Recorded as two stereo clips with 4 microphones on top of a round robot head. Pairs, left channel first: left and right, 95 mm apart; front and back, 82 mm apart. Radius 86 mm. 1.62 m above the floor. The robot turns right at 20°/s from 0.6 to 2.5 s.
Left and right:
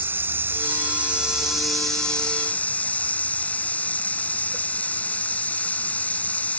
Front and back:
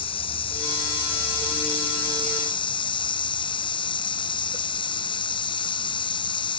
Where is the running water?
20° right; by 6.6 s 15° left.